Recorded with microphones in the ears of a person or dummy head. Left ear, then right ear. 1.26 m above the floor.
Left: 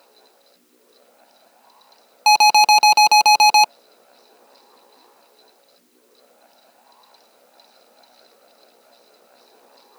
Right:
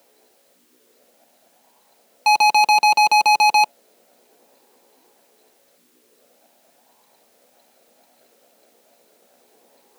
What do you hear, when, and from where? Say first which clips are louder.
0.0 s a fan: left 5 dB; 50° left (ahead or behind)
2.3 s an alarm: left 2 dB; 10° left (ahead or behind)